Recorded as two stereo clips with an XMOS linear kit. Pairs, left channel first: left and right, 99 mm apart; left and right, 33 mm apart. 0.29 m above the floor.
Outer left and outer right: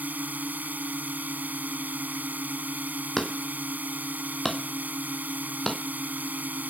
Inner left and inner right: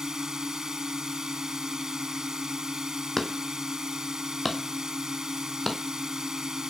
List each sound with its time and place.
0.0 s a drone: 15° right (ahead or behind)
3.2 s hammering: 5° left (ahead or behind)